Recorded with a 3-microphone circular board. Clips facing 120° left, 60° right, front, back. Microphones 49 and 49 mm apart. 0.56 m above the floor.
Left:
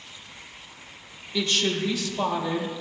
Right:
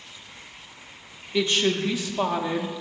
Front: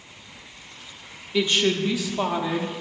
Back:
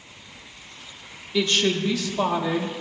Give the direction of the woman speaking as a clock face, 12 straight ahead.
2 o'clock.